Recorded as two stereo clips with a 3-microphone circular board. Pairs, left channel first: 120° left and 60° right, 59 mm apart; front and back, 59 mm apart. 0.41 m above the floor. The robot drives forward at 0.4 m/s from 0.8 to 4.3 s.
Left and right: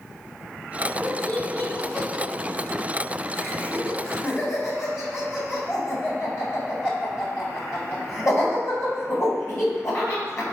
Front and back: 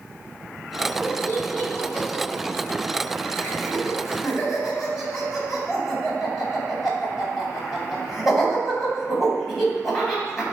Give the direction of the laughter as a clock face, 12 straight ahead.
10 o'clock.